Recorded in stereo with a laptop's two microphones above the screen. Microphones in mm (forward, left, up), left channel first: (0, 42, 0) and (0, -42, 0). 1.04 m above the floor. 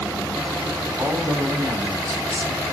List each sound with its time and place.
1.0 s a man speaking: 35° right (ahead or behind), 2.5 m